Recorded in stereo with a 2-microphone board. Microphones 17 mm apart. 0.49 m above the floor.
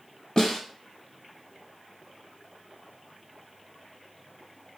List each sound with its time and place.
0.4 s a snare drum: 45° left (ahead or behind), 0.7 m